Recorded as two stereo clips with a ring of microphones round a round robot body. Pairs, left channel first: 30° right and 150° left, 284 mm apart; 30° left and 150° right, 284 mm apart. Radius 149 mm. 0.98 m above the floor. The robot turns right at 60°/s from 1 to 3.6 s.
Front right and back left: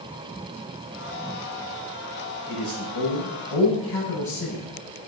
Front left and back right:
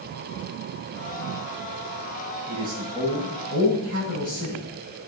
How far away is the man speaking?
About 6.5 m.